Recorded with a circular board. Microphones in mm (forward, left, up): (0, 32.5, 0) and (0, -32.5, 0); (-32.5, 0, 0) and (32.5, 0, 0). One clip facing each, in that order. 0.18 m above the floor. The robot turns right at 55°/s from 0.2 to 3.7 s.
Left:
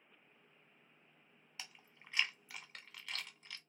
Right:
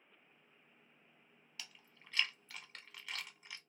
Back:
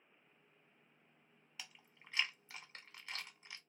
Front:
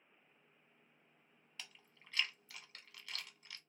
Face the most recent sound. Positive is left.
turn(degrees=-135)